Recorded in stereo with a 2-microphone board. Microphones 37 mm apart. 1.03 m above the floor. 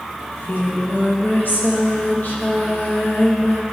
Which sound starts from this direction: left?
Singing, at 0.2 s.